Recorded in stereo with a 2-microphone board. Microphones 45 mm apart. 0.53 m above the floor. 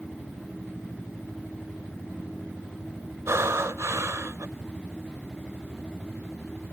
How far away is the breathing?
About 0.5 m.